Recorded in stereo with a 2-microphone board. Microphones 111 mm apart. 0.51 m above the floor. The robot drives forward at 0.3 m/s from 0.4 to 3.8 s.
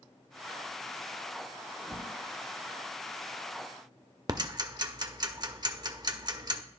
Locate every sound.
1.8 s a whoosh: 10° right (ahead or behind), 1.2 m
4.3 s ticking: 35° right (ahead or behind), 0.6 m